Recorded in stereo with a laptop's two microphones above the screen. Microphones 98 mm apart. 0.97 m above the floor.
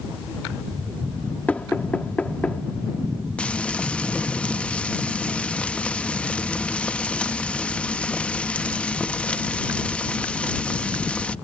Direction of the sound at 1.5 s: 15° left (ahead or behind).